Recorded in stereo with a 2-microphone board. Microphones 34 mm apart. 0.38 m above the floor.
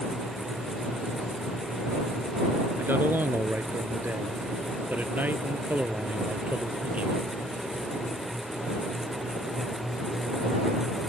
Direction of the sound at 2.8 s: 75° right (ahead or behind).